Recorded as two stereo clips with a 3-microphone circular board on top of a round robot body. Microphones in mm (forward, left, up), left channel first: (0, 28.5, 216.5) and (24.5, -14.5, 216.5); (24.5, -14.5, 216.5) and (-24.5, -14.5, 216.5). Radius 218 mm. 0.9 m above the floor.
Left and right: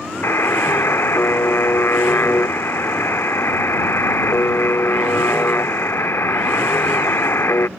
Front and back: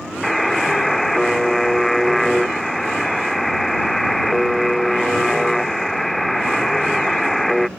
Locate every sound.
0.2 s a buzzer: 85° left